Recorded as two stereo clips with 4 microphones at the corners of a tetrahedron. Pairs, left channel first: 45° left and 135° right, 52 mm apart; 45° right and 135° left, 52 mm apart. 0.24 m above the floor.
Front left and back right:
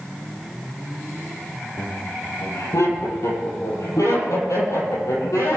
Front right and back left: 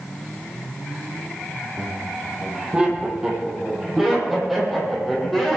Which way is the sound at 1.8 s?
70° left.